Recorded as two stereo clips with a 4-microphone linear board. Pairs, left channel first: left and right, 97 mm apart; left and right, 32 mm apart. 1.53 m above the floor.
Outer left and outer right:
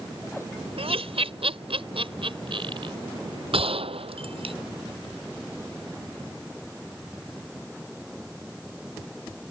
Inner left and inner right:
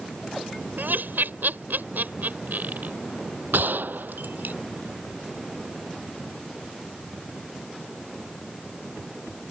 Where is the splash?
No splash in this recording.